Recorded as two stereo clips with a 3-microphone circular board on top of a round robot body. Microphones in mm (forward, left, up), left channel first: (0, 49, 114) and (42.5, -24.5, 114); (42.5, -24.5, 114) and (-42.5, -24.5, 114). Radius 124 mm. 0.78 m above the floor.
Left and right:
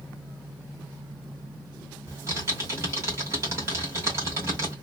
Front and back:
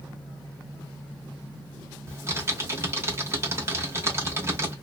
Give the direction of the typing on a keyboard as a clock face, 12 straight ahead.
4 o'clock.